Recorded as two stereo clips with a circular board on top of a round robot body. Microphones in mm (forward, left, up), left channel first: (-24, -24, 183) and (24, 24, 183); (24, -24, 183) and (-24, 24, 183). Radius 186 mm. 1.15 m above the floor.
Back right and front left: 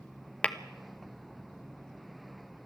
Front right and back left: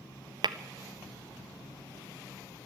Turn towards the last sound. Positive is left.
turn(degrees=150)